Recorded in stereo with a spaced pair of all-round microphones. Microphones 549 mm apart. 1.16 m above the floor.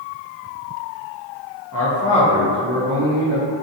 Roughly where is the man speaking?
Left.